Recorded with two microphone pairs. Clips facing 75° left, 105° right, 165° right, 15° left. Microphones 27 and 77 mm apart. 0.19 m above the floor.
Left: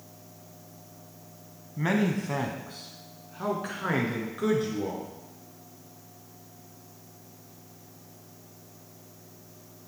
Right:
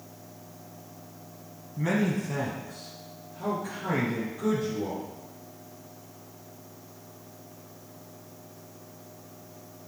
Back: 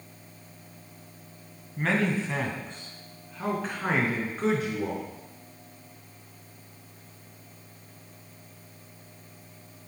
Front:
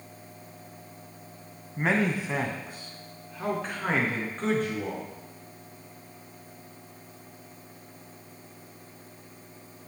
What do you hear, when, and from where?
1.8 s a man speaking: 65° left, 1.1 m; by 5.0 s 110° left, 2.5 m